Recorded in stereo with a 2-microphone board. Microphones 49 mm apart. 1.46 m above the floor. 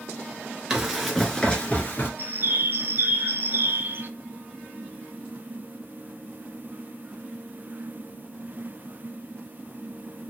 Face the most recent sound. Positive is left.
turn(degrees=-45)  # may be behind; listen again after turning